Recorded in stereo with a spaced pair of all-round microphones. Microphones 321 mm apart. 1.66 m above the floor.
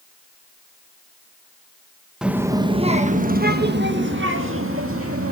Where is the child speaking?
Centre (ahead or behind), 0.9 m; by 5.3 s 45° right (ahead or behind), 2 m.